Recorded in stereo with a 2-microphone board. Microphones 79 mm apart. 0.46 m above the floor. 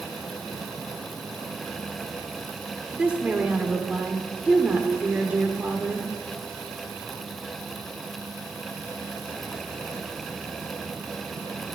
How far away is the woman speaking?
About 1.0 m.